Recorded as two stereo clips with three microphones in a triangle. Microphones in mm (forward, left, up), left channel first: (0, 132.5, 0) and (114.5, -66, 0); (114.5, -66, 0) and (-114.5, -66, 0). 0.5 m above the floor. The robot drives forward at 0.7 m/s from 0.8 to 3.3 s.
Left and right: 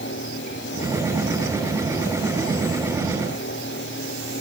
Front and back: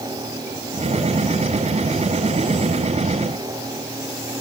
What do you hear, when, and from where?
Only background noise.